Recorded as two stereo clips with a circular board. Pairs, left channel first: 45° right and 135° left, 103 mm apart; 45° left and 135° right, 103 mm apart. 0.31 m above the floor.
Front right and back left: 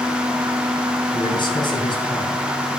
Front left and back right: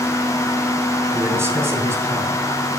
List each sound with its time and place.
1.1 s a man speaking: 75° right, 2.5 m